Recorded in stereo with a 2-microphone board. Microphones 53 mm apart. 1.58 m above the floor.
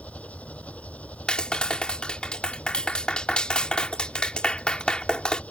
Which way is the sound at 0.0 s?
25° left (ahead or behind).